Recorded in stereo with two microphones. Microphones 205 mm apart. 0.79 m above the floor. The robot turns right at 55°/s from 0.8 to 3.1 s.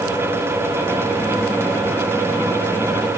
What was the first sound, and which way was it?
Only background noise.